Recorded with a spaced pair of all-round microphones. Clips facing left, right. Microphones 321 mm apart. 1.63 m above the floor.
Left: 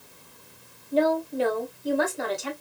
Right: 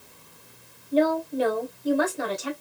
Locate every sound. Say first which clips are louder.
0.9 s a woman speaking: right 1 dB; centre (ahead or behind), 1.2 m